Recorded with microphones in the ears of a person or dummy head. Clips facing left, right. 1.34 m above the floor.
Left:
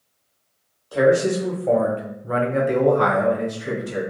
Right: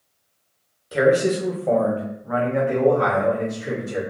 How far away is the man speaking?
About 1.0 m.